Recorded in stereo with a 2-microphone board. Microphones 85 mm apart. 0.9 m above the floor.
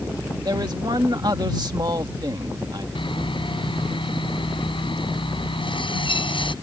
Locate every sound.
0.5 s a man speaking: 55° right (ahead or behind)
3.0 s sawing: 80° left